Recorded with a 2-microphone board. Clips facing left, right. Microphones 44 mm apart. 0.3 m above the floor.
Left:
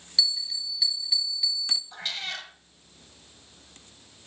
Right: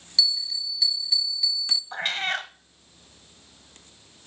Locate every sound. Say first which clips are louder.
0.2 s a bell: right 2 dB; 5° left (ahead or behind), 2 m
1.9 s a cat meowing: right 7 dB; 45° right (ahead or behind), 0.8 m